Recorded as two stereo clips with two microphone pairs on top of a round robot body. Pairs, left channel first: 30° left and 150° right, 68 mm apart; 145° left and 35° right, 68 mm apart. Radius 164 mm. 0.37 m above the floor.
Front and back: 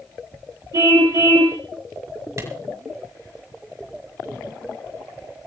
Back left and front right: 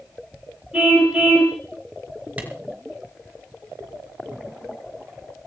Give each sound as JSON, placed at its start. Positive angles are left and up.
{"t": 0.7, "sound": "a car horn", "azimuth_deg": -110, "distance_m": 5.5}
{"t": 2.4, "sound": "a clap", "azimuth_deg": -105, "distance_m": 6.0}